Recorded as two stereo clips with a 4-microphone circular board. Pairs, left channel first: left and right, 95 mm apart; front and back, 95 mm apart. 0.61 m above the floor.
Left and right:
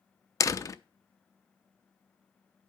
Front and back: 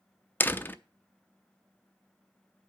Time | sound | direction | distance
0.4 | a door slam | 60° left | 0.5 m